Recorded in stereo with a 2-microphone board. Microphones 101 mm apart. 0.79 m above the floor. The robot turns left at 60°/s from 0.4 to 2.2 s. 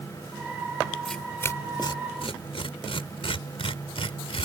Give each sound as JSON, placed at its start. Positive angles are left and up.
{"t": 1.1, "sound": "tearing paper", "side_deg": 0}